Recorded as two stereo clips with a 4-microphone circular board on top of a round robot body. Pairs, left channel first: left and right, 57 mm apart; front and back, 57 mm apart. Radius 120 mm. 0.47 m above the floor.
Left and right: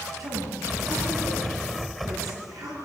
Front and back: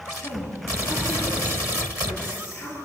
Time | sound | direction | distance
0.2 | a woman speaking | 65° right | 9.5 m